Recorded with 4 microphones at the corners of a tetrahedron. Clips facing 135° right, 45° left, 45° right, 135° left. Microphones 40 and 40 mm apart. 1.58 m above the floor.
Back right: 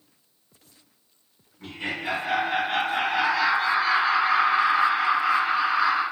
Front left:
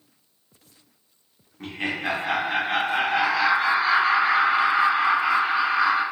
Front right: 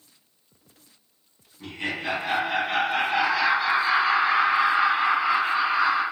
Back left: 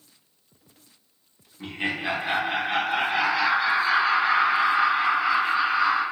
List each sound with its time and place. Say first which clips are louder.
1.6 s laughter: front left 3 dB, back left 2 dB; 75° left, 1.0 m; by 6.0 s 35° left, 3 m